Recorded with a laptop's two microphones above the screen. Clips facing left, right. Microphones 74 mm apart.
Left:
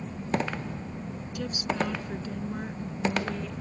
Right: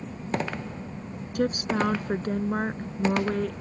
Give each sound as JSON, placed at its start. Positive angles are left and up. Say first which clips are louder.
{"t": 1.4, "sound": "a woman speaking", "louder": "right 5 dB", "side_deg": -50}